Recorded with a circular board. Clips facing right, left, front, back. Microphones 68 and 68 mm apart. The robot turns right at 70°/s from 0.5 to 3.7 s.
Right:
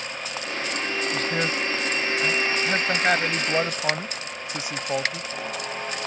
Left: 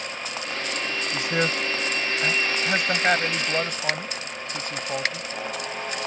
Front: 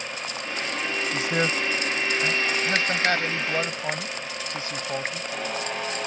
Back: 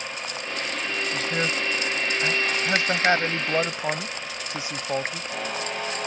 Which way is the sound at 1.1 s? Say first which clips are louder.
Left 3 dB, front 2 dB; 30° left.